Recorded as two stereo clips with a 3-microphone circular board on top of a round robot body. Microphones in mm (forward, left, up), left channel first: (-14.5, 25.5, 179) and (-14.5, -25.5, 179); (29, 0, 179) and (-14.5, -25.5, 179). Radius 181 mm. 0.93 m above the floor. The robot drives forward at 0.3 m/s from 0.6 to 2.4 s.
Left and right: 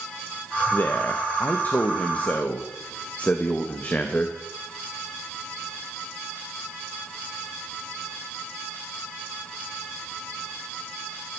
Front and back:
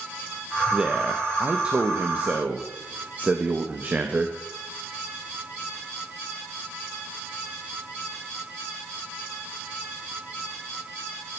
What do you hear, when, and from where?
0.7 s a man speaking: 140° left, 1.1 m; by 4.4 s 150° left, 1.5 m